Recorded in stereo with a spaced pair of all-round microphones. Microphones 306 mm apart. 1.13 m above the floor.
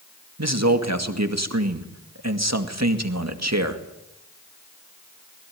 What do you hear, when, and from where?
0.4 s a man speaking: 60° right (ahead or behind), 2 m